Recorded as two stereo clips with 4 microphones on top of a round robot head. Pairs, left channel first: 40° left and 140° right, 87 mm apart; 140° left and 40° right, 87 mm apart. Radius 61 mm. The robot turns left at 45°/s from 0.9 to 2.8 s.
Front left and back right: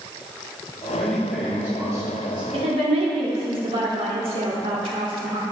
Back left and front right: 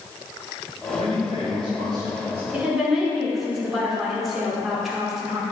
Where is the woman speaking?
115° right, 2.5 m; by 5.4 s 125° right, 2.5 m.